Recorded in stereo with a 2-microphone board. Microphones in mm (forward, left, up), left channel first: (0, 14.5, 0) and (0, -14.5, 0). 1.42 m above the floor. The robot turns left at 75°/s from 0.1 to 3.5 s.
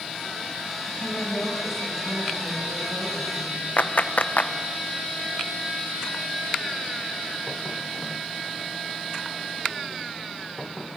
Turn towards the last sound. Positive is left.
turn(degrees=70)  # may be behind; listen again after turning